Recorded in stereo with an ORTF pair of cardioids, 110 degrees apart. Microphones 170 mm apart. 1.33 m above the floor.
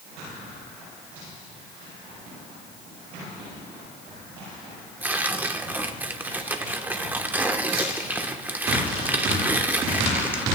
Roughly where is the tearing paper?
Ahead.